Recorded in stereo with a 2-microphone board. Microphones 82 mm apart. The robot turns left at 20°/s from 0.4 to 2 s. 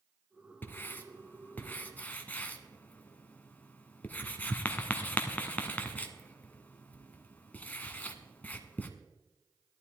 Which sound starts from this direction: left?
Writing, at 0.6 s.